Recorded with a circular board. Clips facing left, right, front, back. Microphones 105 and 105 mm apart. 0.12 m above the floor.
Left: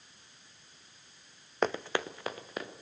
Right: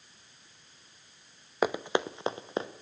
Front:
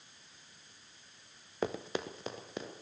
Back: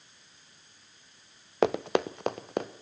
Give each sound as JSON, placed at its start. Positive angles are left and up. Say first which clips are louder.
{"t": 1.6, "sound": "running footsteps", "louder": "right 3 dB, back 10 dB", "azimuth_deg": -175, "distance_m": 0.5}